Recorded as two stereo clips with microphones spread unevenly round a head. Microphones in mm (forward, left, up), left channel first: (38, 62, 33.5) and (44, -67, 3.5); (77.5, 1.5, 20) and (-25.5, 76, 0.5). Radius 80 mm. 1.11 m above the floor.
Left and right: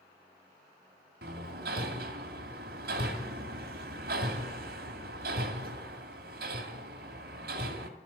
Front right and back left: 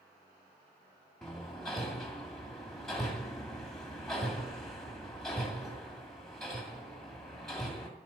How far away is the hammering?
About 2 m.